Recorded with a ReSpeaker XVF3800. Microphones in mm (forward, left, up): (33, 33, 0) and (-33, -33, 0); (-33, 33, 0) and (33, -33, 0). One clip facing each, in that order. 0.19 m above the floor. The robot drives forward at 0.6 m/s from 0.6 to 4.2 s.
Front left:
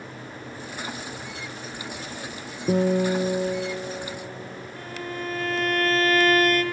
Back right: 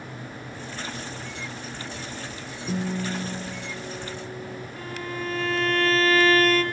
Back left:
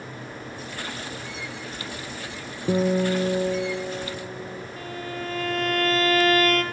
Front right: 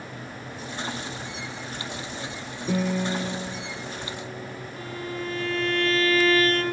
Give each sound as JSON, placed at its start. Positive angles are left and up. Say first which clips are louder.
{"t": 2.7, "sound": "a guitar", "louder": "front left 8 dB, back left 4 dB", "azimuth_deg": 70, "distance_m": 1.5}
{"t": 4.8, "sound": "a violin", "louder": "even, front right 1 dB", "azimuth_deg": 125, "distance_m": 3.0}